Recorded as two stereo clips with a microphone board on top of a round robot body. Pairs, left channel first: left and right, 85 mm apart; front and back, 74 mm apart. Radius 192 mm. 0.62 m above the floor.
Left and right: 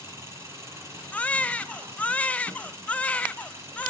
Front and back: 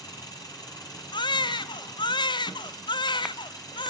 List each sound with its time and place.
0.0 s an engine running: 30° right, 4.5 m
1.1 s a baby crying: 15° left, 0.5 m